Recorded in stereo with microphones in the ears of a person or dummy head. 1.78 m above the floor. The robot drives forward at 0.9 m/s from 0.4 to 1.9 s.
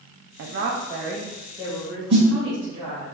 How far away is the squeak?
No squeak in this recording.